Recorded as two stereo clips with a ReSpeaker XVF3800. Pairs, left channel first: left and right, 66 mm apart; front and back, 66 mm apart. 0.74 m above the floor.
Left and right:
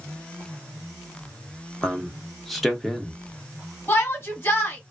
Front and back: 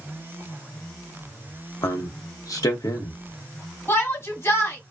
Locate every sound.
1.8 s a man speaking: 5° left, 1.0 m
3.9 s a shout: 40° left, 1.7 m